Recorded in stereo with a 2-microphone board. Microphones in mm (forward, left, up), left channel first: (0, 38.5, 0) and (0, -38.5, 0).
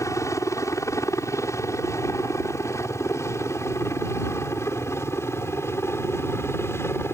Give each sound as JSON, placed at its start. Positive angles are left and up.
{"t": 0.0, "sound": "a helicopter", "side_deg": 40}